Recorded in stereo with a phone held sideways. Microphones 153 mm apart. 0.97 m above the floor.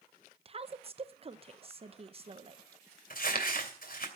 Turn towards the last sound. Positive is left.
turn(degrees=65)  # may be behind; listen again after turning